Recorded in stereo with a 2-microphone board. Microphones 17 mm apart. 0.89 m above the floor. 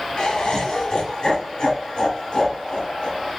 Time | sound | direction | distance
0.2 | laughter | 50° left (ahead or behind) | 1.0 m